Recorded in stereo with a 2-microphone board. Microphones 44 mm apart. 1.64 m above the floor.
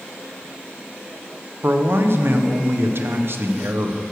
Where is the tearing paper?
No tearing paper in this recording.